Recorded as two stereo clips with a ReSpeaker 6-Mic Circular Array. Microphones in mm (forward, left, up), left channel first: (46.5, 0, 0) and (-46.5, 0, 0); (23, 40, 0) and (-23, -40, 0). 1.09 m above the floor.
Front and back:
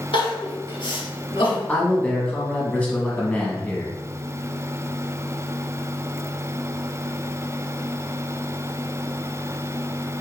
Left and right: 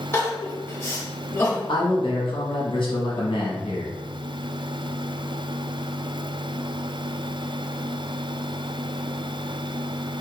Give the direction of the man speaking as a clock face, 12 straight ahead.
10 o'clock.